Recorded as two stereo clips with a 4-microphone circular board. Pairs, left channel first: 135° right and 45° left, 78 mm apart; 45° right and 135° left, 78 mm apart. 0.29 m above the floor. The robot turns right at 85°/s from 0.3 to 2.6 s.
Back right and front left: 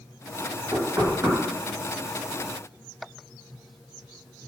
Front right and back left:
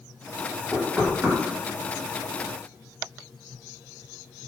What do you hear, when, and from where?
0.7 s knocking: 25° left, 1.1 m; by 1.4 s 80° left, 1.1 m